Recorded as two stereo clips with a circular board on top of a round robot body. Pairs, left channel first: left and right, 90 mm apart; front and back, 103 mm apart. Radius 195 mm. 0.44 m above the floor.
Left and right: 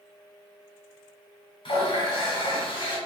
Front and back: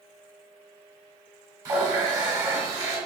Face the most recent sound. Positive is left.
turn(degrees=125)